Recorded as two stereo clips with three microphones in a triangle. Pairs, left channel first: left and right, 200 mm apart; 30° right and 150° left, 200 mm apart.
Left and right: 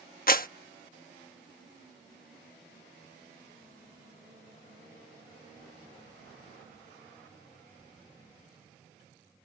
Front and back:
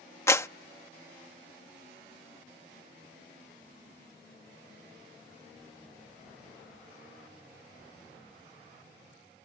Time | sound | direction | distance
0.3 | a clap | 45° left | ?